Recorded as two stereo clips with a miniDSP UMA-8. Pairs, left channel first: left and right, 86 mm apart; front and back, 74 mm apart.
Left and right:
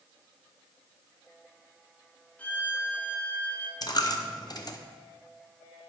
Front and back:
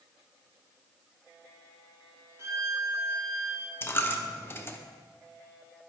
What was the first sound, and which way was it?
A violin, 155° left.